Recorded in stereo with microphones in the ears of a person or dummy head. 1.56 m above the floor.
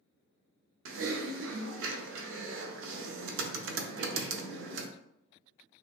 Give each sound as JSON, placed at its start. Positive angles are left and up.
{"t": 0.8, "sound": "typing on a keyboard", "side_deg": -65, "distance_m": 0.5}